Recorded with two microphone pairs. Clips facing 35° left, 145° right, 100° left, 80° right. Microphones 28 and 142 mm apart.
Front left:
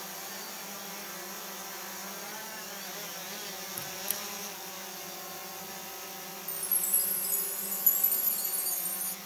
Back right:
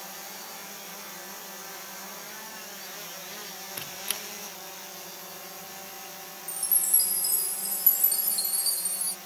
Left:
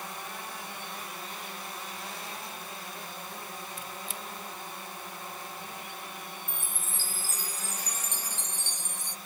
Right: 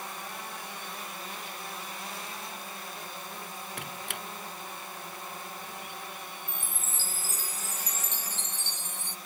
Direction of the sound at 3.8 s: 100° right.